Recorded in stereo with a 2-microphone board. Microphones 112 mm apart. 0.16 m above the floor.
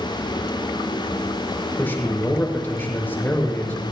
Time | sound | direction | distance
1.8 | a man speaking | 20° left (ahead or behind) | 5.5 m